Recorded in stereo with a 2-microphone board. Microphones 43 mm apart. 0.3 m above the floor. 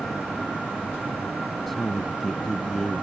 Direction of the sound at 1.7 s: 5° left (ahead or behind).